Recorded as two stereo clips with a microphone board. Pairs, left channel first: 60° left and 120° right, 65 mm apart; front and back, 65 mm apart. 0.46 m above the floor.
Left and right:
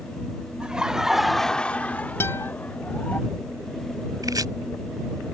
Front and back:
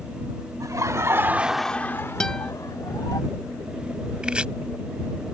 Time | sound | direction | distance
0.6 | laughter | 165° left | ?
2.2 | a guitar | 75° left | ?
4.2 | chopping | 105° right | ?